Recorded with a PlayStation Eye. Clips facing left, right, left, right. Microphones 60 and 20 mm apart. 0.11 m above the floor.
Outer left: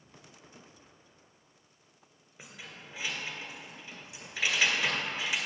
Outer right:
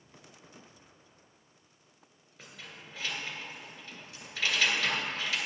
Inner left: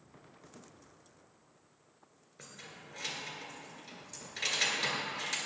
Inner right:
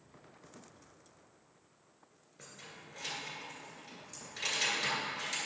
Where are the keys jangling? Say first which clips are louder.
Outer left 1 dB, inner left 1 dB; 15° left (ahead or behind), 1.5 m.